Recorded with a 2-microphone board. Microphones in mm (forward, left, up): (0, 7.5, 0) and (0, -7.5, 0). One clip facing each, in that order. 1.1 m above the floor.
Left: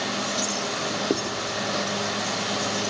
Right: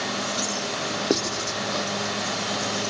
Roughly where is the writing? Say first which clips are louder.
Right 1 dB; right.